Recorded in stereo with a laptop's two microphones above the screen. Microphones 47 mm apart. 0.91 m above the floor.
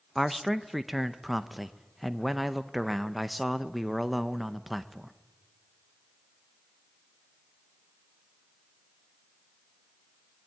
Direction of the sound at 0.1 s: 5° right (ahead or behind).